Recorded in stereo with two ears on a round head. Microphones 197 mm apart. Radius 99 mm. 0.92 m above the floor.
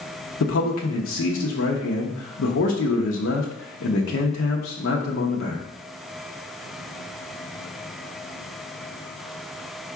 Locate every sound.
0.4 s a man speaking: 70° left (ahead or behind), 0.7 m